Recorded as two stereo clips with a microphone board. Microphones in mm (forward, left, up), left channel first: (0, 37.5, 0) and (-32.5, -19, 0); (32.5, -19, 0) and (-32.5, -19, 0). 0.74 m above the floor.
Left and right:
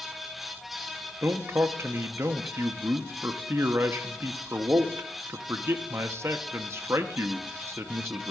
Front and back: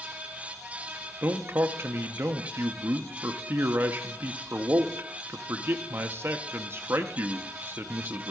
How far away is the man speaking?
About 0.6 m.